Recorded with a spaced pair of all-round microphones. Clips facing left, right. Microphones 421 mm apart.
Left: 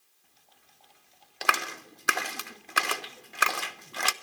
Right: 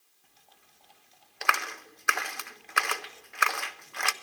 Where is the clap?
50° left (ahead or behind), 0.5 m.